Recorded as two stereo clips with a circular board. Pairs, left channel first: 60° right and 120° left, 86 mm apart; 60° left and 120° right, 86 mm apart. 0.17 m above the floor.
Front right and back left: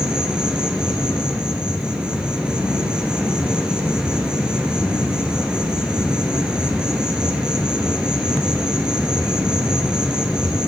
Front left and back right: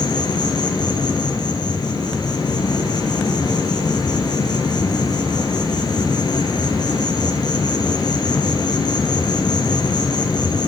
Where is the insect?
40° left, 1.7 m.